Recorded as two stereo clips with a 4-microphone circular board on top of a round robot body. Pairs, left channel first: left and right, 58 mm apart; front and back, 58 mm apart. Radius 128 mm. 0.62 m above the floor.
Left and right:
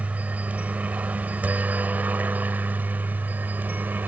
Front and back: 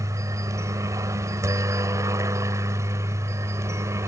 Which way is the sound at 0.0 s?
155° right.